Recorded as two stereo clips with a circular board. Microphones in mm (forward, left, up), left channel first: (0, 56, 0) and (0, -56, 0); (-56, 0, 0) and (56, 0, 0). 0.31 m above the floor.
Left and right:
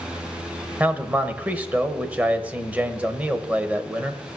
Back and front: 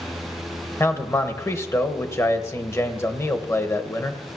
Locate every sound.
0.8 s a man speaking: 150° right, 1.1 m